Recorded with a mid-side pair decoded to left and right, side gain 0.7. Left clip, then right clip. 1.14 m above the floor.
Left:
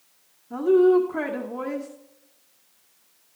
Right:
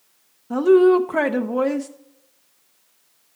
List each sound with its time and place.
0.5 s a woman speaking: 60° right, 0.6 m